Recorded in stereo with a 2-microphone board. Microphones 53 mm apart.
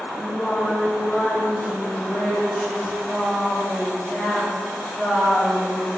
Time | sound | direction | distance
0.2 | singing | 35° left (ahead or behind) | 1.8 m